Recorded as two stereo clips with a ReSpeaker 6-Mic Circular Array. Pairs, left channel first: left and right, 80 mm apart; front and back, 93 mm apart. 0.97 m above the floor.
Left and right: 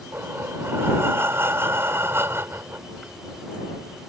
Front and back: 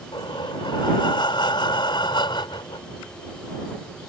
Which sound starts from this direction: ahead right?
Breathing, at 0.1 s.